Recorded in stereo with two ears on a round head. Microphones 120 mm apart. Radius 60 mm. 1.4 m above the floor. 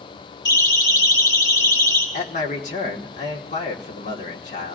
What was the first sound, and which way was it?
A siren, 30° left (ahead or behind).